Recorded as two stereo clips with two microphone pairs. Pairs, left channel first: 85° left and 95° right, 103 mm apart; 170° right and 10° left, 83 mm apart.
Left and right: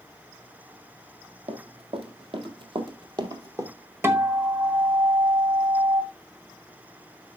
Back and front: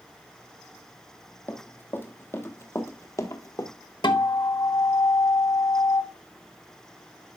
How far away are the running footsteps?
About 1.9 m.